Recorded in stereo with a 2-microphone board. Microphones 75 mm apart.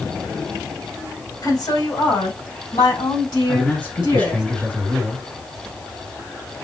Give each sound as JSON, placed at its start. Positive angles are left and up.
{"t": 1.4, "sound": "a woman speaking", "side_deg": 60, "distance_m": 2.5}
{"t": 3.5, "sound": "a man speaking", "side_deg": 25, "distance_m": 2.0}